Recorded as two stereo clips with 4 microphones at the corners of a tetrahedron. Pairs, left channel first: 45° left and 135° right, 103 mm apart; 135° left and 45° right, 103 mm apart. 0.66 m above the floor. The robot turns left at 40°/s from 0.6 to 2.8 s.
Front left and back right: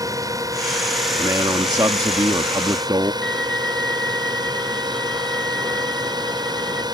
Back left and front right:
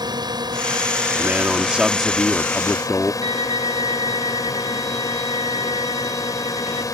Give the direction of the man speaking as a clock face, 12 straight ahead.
3 o'clock.